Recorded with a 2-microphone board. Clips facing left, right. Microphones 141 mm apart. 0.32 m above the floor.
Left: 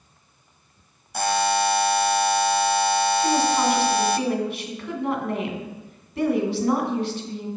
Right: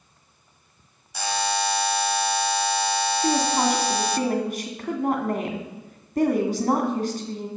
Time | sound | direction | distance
1.1 | a buzzer | 50° left (ahead or behind) | 0.6 m
3.2 | a woman speaking | 45° right (ahead or behind) | 2.5 m